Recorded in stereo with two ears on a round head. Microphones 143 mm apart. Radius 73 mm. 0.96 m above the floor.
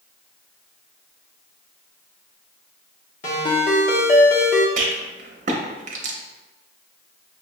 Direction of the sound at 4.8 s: 45° right (ahead or behind).